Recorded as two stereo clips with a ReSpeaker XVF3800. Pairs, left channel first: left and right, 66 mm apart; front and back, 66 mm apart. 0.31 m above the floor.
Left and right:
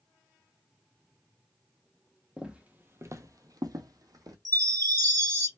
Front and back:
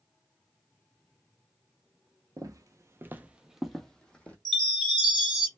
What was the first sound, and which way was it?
Footsteps, 165° right.